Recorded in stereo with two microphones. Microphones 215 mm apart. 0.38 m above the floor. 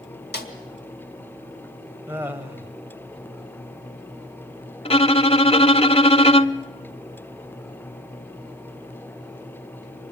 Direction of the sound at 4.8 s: 25° left (ahead or behind).